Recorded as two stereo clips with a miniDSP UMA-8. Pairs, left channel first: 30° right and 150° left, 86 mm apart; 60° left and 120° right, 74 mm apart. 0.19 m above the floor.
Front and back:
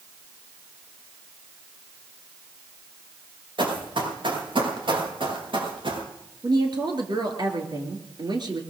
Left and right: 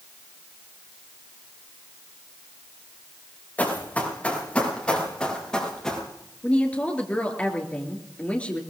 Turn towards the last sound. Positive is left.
turn(degrees=130)